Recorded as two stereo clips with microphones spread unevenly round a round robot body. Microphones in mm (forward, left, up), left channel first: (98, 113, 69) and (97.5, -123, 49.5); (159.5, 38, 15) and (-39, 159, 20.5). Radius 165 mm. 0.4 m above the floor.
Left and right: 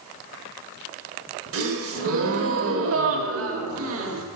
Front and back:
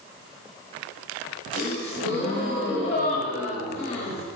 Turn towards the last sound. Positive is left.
turn(degrees=-80)